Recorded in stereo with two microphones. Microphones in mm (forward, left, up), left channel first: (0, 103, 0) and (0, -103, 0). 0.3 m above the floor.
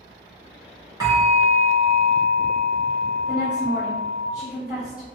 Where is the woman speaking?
5° right (ahead or behind), 1.7 m.